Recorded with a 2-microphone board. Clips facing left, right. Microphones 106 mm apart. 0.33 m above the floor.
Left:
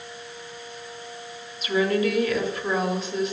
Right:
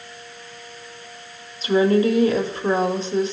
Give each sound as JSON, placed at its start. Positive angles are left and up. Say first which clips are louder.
{"t": 1.6, "sound": "a woman speaking", "louder": "right 5 dB", "side_deg": -30, "distance_m": 1.1}